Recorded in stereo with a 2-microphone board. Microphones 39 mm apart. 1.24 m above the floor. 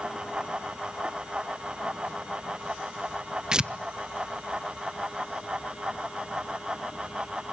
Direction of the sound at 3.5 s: 20° right (ahead or behind).